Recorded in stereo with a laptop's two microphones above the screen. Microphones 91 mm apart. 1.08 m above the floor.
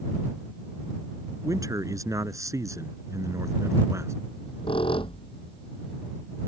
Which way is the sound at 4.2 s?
75° left (ahead or behind).